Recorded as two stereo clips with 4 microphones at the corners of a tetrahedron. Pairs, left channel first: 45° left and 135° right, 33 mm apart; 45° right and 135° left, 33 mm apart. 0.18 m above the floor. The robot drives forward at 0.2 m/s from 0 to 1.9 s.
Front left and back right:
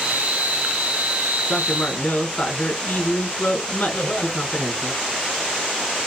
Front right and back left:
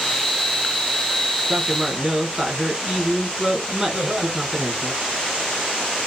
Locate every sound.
1.5 s a man speaking: 70° left, 3 m
3.9 s laughter: 75° left, 3.5 m